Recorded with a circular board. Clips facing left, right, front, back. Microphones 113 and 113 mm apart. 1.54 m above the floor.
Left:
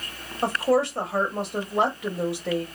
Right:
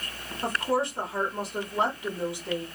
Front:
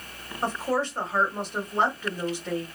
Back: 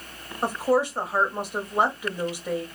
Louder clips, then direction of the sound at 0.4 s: Left 5 dB, back 4 dB; 100° left.